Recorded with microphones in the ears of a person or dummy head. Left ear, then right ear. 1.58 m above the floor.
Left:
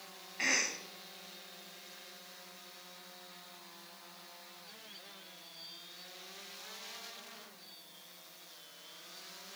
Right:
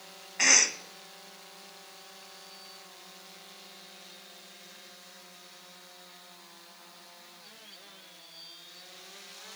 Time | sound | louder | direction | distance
0.4 | a cough | right 9 dB | 35° right (ahead or behind) | 0.9 m